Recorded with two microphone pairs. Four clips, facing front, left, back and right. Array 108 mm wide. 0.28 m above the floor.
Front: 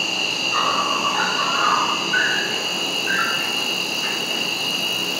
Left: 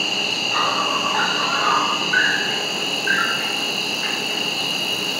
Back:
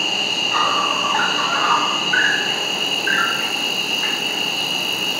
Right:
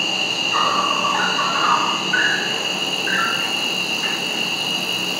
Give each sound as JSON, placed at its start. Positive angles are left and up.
{"t": 0.0, "sound": "an insect", "azimuth_deg": 175, "distance_m": 2.5}